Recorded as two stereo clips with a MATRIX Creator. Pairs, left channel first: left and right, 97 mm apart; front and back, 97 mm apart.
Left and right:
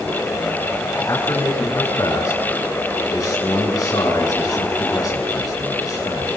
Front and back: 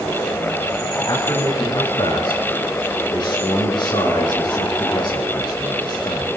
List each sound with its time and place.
1.1 s a man speaking: 40° left, 7.5 m